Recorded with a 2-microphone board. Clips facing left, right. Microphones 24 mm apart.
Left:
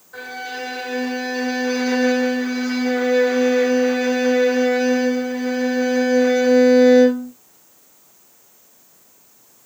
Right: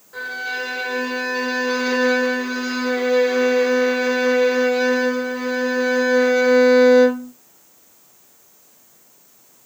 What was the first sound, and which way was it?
A violin, 10° right (ahead or behind).